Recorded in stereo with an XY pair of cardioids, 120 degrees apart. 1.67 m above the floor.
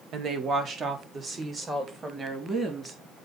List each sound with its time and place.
0.1 s a woman speaking: 55° right, 1.7 m; by 3.0 s 25° right, 4 m